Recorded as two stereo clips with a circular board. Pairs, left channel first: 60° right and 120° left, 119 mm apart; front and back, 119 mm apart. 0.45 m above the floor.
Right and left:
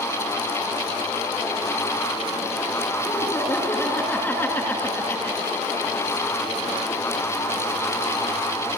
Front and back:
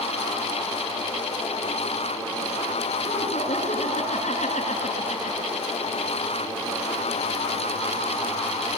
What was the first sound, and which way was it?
Laughter, 15° left.